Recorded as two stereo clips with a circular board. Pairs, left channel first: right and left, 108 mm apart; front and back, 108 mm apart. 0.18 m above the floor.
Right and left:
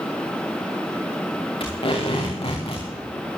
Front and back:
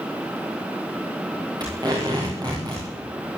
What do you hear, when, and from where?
1.6 s tape being pulled: 130° right, 7.5 m